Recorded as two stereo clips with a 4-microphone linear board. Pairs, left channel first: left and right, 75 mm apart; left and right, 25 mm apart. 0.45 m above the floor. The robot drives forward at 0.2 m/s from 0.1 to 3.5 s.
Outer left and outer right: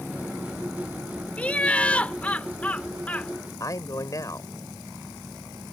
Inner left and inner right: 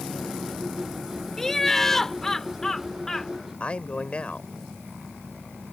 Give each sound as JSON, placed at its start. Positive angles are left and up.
{"t": 1.4, "sound": "laughter", "side_deg": 15}
{"t": 3.6, "sound": "a man speaking", "side_deg": 50}